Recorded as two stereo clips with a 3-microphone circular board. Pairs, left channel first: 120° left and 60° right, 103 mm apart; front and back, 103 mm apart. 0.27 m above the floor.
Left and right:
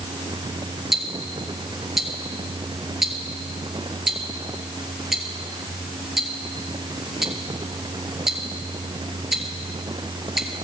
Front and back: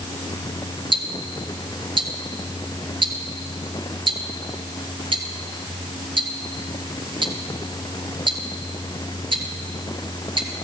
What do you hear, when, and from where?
0.9 s ticking: 145° right, 1.7 m